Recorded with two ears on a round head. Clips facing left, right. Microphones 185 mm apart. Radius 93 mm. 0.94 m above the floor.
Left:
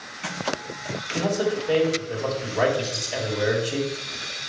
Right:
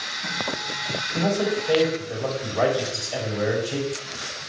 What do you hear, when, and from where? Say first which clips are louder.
1.1 s a man speaking: right 1 dB; 10° left (ahead or behind), 4 m
2.8 s a bird: even; 15° left (ahead or behind), 4 m